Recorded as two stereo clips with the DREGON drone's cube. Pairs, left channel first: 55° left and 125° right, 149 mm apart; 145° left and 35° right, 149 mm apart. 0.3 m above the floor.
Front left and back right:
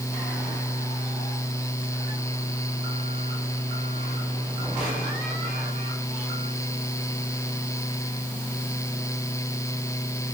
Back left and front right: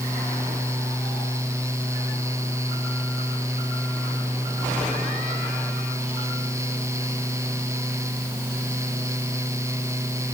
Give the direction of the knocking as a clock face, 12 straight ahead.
No knocking in this recording.